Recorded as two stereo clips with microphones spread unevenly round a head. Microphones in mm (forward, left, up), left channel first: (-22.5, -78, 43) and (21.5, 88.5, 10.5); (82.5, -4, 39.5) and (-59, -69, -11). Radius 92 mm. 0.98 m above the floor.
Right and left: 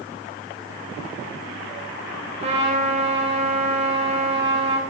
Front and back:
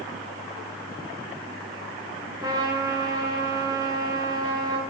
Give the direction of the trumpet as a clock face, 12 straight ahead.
8 o'clock.